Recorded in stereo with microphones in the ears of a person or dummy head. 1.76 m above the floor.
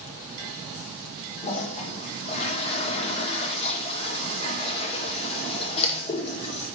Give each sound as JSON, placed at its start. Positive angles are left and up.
{"t": 1.4, "sound": "a toilet flushing", "side_deg": 30, "distance_m": 1.2}